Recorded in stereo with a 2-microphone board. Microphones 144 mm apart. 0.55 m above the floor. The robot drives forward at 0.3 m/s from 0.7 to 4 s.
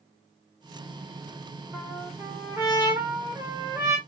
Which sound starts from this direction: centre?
A trumpet, at 1.7 s.